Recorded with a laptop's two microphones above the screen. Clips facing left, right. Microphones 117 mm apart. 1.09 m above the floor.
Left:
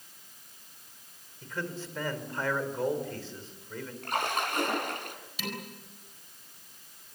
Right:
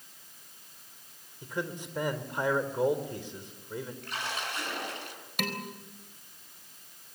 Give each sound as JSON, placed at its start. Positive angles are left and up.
{"t": 1.4, "sound": "a man speaking", "side_deg": -15, "distance_m": 4.0}
{"t": 4.0, "sound": "a splash", "side_deg": 55, "distance_m": 4.0}
{"t": 5.4, "sound": "dishes clattering", "side_deg": -65, "distance_m": 4.0}